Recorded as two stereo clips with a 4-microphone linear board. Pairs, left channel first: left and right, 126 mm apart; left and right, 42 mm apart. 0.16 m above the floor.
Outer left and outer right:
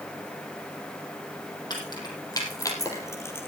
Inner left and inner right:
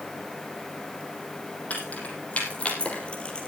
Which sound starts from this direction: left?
Keys jangling, at 1.7 s.